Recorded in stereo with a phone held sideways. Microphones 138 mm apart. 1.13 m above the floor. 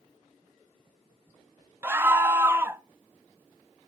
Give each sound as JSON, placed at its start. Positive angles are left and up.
{"t": 1.8, "sound": "a scream", "side_deg": -15, "distance_m": 0.5}